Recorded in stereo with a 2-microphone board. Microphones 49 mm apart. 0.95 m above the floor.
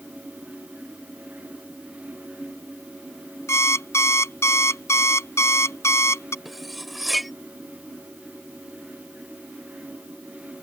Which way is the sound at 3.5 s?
70° left (ahead or behind).